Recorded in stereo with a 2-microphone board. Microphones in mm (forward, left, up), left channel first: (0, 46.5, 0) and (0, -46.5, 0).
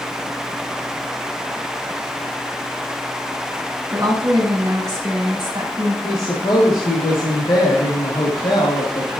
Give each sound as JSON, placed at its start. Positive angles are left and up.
{"t": 3.9, "sound": "a woman speaking", "side_deg": -35, "distance_m": 4.5}
{"t": 6.0, "sound": "a woman speaking", "side_deg": 60, "distance_m": 2.0}